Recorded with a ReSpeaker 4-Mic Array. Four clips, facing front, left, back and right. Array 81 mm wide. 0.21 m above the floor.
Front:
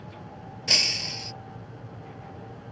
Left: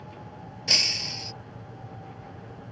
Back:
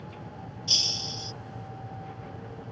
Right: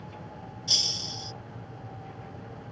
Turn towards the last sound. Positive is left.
turn(degrees=40)